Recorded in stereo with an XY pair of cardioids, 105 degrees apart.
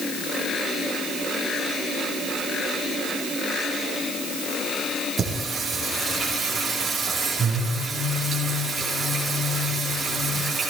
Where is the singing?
40° right, 6 m.